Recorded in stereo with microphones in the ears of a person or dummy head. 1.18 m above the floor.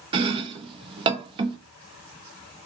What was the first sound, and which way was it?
Chopping, 25° right (ahead or behind).